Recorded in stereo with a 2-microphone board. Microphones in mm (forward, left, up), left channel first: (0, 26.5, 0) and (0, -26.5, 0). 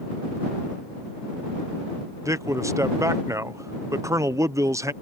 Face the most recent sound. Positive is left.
turn(degrees=-70)  # may be behind; listen again after turning